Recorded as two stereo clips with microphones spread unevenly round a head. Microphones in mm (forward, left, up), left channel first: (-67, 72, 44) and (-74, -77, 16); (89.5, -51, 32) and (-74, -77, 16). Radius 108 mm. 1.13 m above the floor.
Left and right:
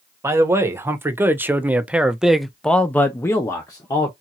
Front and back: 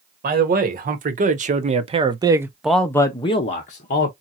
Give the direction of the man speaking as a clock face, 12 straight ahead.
5 o'clock.